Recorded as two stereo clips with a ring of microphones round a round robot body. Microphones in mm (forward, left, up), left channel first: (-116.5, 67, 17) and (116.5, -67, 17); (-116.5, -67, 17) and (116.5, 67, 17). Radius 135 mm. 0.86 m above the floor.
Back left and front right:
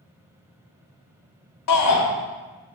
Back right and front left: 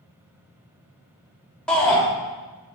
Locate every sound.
1.7 s a shout: 125° left, 1.7 m